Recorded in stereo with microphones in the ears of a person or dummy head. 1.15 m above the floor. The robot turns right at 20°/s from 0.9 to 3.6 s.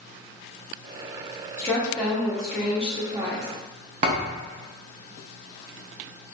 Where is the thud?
45° right (ahead or behind), 0.7 m.